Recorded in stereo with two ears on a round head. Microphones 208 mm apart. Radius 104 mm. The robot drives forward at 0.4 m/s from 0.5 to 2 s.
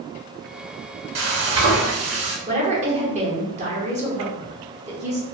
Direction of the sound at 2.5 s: 30° right (ahead or behind).